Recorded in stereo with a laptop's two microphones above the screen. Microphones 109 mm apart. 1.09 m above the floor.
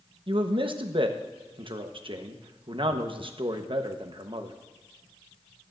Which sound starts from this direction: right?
A man speaking, at 0.3 s.